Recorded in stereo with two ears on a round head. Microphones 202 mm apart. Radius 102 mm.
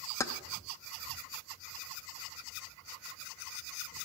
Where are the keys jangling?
15° left (ahead or behind), 0.7 m.